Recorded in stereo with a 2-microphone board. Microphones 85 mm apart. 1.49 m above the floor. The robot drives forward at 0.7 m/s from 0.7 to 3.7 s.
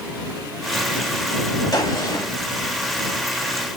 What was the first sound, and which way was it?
A gunshot, 50° left (ahead or behind).